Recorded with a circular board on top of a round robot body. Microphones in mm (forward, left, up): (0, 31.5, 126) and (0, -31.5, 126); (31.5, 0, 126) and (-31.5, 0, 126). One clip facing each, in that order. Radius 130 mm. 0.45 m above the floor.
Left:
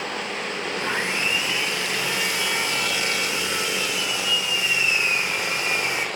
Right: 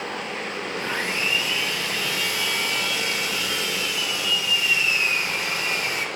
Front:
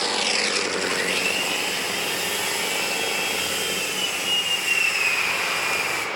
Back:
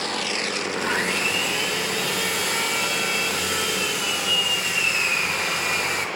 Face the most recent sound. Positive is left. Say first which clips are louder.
# left 1 dB, back 1 dB
turn(degrees=155)